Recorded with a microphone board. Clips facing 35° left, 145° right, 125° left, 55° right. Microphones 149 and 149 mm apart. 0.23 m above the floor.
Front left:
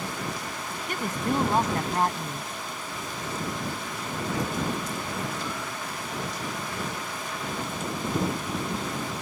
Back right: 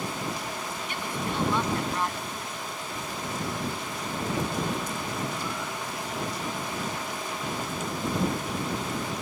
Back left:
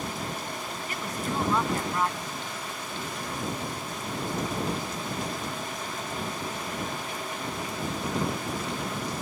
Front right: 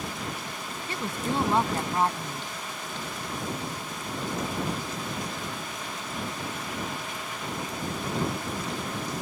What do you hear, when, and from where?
0.9 s a woman speaking: straight ahead